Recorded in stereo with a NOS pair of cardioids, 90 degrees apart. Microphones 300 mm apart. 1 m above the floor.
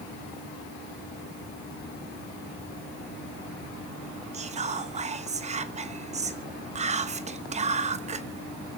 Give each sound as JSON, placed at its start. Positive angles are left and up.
{"t": 4.3, "sound": "whispering", "azimuth_deg": -25, "distance_m": 0.7}